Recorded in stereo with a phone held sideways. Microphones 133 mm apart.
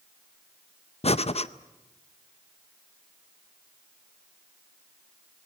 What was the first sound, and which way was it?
Breathing, 50° left (ahead or behind).